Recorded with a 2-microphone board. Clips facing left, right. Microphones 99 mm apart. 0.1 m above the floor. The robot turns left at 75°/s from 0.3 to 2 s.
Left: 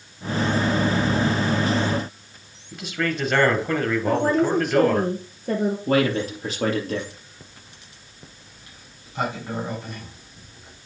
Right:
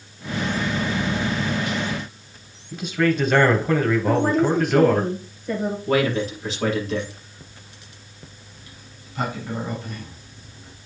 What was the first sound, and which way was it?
A man speaking, centre (ahead or behind).